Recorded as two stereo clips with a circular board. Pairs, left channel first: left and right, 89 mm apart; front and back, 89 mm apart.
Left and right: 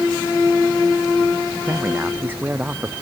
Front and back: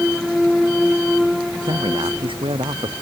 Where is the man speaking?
160° right.